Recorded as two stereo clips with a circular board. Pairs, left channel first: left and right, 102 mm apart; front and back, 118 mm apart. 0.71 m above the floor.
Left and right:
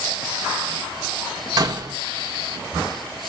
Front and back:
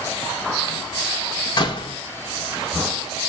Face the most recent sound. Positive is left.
turn(degrees=-45)